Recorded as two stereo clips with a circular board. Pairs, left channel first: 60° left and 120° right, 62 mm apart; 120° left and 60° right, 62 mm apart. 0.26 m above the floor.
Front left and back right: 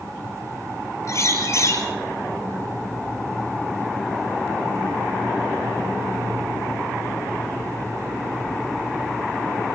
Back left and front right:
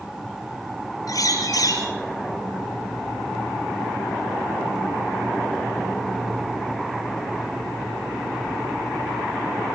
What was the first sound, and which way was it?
A bird, 100° left.